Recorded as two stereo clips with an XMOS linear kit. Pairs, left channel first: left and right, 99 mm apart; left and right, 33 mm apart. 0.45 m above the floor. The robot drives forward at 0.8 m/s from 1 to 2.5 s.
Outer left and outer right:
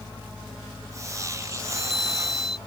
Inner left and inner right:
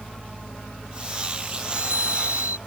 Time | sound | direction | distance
1.7 | a chime | 75° right (ahead or behind) | ?